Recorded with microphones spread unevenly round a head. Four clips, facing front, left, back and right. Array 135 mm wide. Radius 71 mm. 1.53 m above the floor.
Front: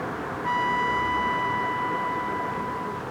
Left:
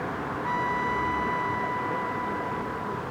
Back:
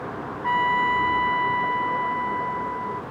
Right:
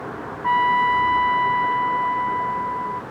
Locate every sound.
0.4 s a trumpet: 95° right